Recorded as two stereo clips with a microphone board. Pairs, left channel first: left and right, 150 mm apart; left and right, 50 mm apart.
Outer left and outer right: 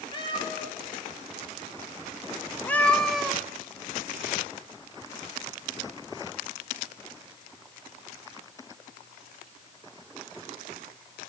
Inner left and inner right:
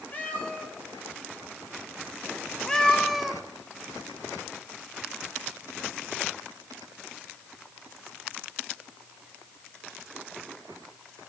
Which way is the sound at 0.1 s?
35° left (ahead or behind).